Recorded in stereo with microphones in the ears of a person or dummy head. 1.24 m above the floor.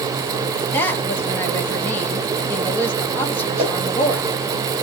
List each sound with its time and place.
0.7 s a woman speaking: 10° left (ahead or behind), 1.0 m
3.6 s a whoosh: 35° right (ahead or behind), 1.5 m